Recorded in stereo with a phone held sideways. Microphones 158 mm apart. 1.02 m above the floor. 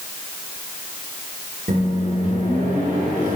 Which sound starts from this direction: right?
A microwave, at 1.7 s.